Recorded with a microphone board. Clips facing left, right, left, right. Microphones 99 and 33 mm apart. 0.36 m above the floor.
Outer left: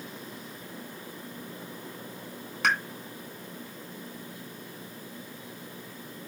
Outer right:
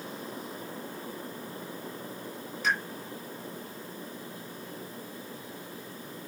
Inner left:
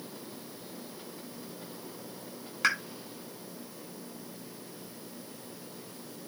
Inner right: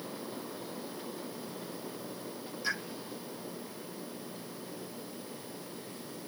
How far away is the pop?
About 2.5 m.